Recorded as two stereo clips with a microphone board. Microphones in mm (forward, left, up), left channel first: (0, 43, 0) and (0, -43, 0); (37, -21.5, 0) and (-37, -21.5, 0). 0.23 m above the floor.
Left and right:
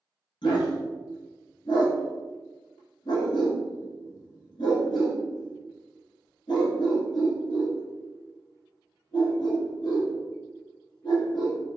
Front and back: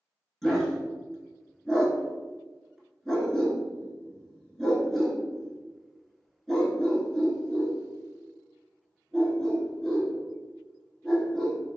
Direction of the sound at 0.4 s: 90° left.